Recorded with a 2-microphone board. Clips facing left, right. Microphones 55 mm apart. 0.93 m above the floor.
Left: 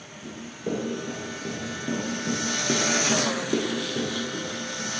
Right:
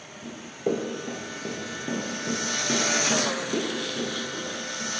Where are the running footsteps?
55° right (ahead or behind), 1.4 m; by 4.9 s 60° left (ahead or behind), 1.8 m.